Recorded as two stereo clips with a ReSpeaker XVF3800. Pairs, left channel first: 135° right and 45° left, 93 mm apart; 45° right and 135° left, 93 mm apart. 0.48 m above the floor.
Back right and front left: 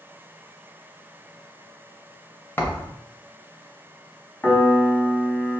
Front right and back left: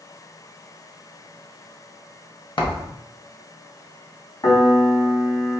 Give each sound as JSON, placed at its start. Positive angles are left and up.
{"t": 2.6, "sound": "a thud", "azimuth_deg": -70, "distance_m": 0.8}
{"t": 4.4, "sound": "a piano", "azimuth_deg": -70, "distance_m": 1.0}